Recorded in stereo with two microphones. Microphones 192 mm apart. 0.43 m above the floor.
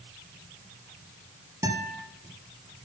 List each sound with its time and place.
1.6 s a guitar: 20° right (ahead or behind), 1.7 m